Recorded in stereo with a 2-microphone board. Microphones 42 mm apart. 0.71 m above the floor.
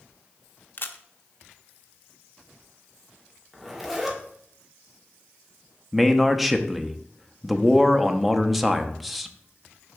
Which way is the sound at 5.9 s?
Centre (ahead or behind).